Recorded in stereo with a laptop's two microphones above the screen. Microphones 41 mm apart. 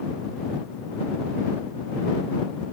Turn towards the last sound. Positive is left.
No sound to turn to.